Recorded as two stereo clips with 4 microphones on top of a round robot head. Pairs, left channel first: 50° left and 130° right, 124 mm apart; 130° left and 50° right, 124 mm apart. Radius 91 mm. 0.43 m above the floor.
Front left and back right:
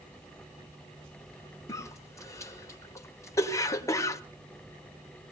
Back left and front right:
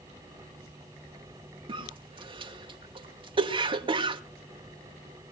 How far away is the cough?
About 2 m.